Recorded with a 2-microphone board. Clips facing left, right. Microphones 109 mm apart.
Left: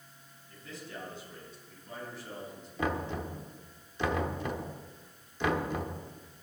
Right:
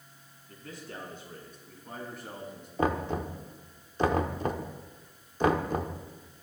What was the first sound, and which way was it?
A man speaking, 55° right (ahead or behind).